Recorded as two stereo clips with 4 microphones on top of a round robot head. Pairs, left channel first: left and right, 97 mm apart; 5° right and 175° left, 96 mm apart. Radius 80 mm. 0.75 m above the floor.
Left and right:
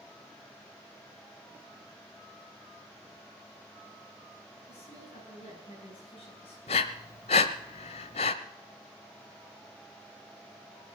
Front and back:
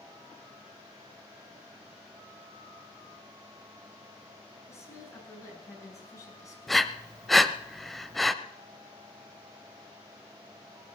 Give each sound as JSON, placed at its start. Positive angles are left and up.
{"t": 4.7, "sound": "a woman speaking", "azimuth_deg": 55, "distance_m": 7.5}
{"t": 6.7, "sound": "breathing", "azimuth_deg": 80, "distance_m": 0.7}